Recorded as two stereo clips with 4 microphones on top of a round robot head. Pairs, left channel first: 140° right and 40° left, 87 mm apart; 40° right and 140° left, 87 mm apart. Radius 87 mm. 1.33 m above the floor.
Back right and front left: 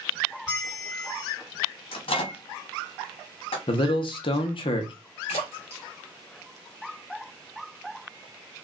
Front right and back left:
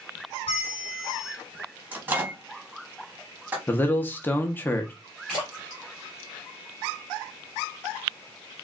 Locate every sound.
0.5 s a bell: 55° right, 1.3 m
1.9 s a microwave: 150° right, 0.8 m
3.7 s a man speaking: 110° right, 0.5 m
5.3 s a splash: 135° right, 1.4 m